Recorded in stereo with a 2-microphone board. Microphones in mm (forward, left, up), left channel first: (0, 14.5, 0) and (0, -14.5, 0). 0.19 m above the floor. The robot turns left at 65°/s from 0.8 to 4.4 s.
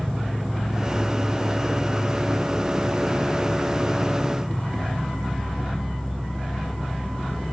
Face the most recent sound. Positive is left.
turn(degrees=45)